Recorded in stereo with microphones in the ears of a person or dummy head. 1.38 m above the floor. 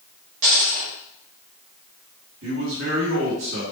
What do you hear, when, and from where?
0.4 s a dropped coin: 45° right (ahead or behind), 1.1 m
2.4 s a man speaking: 70° right (ahead or behind), 1.3 m